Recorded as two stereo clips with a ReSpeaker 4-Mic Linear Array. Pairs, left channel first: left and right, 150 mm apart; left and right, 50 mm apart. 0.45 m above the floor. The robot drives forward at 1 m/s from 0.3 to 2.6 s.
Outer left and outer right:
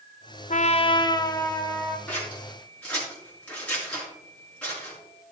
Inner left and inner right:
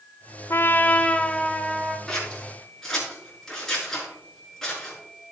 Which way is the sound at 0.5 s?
55° left (ahead or behind).